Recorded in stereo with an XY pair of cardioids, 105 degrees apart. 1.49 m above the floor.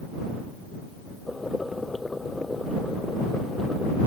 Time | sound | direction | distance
1.3 | boiling | 15° left | ?